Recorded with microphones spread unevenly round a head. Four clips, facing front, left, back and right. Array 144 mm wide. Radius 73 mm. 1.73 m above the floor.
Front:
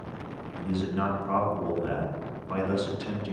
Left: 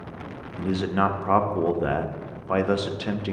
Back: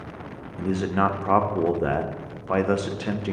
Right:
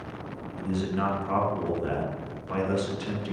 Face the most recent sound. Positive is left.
turn(degrees=145)